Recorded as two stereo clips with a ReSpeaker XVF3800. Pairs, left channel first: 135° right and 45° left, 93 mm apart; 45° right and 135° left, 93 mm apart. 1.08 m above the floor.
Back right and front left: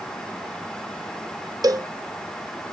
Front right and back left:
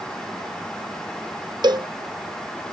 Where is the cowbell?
95° left.